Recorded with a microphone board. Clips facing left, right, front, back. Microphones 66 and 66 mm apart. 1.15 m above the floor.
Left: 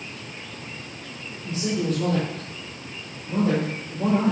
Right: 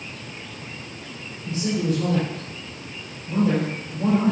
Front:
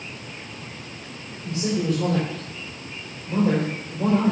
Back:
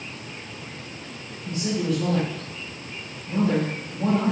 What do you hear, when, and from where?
1.4 s a man speaking: 30° left, 5 m